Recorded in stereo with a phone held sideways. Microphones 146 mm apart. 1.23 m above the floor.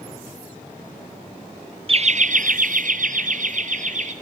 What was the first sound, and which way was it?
Laughter, 40° right (ahead or behind).